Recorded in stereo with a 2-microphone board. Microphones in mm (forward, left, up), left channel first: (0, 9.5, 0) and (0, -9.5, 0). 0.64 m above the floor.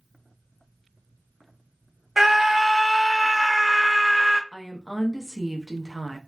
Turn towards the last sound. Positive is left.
turn(degrees=-20)  # may be behind; listen again after turning